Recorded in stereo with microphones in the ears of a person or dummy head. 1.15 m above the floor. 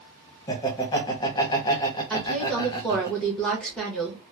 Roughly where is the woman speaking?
Centre.